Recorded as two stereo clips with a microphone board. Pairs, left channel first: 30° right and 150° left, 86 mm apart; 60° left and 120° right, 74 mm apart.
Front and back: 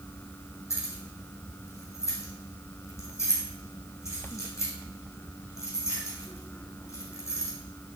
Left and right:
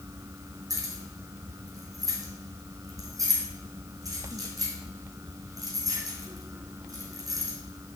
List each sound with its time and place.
0.7 s keys jangling: 85° right, 3.5 m